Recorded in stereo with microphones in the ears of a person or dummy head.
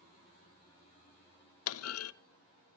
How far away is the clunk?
About 0.7 m.